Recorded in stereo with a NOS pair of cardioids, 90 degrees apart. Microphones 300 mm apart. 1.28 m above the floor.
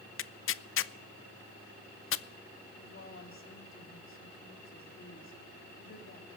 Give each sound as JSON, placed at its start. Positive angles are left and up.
{"t": 0.2, "sound": "tearing paper", "azimuth_deg": 45, "distance_m": 0.5}
{"t": 2.8, "sound": "a woman speaking", "azimuth_deg": 45, "distance_m": 3.5}